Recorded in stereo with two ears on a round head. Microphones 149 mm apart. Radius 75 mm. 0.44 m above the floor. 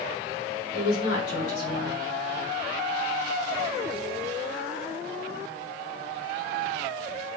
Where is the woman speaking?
55° left (ahead or behind), 1.5 m.